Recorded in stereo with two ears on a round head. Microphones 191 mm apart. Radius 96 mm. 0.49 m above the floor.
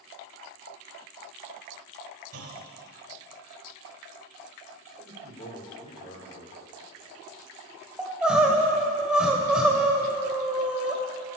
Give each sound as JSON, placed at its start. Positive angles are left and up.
{"t": 2.3, "sound": "a clunk", "side_deg": -70, "distance_m": 1.2}
{"t": 5.0, "sound": "a man speaking", "side_deg": 30, "distance_m": 1.6}
{"t": 8.0, "sound": "crying", "side_deg": -5, "distance_m": 1.0}